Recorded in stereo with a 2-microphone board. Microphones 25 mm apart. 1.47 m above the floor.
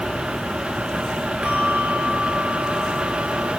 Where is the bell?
70° right (ahead or behind), 2.5 m.